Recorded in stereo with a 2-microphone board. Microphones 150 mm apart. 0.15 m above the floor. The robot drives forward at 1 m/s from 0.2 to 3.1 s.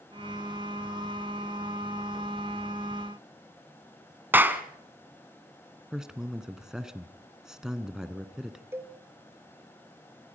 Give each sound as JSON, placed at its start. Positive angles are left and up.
{"t": 4.3, "sound": "a clap", "side_deg": -15, "distance_m": 1.3}
{"t": 5.9, "sound": "a man speaking", "side_deg": -5, "distance_m": 1.3}
{"t": 8.7, "sound": "a cowbell", "side_deg": -15, "distance_m": 1.4}